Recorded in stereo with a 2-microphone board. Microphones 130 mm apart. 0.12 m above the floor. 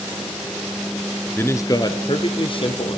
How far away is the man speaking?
About 1.3 m.